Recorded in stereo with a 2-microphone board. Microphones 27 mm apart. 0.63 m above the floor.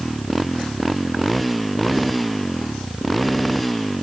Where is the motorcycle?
Centre (ahead or behind); by 4.0 s 5° left (ahead or behind).